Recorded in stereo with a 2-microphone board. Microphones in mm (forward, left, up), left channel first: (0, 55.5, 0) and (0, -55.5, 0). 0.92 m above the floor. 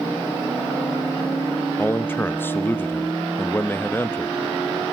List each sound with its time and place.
1.8 s a man speaking: 20° left (ahead or behind), 0.7 m